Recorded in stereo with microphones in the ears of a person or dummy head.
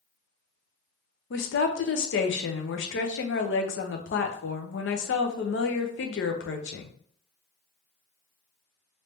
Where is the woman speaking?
55° left (ahead or behind), 0.7 m.